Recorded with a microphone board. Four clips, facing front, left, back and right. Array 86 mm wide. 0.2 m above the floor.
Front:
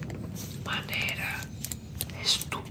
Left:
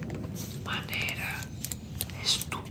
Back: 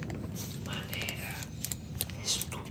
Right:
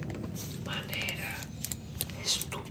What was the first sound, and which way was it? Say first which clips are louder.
Whispering: left 3 dB, front 8 dB; 35° left.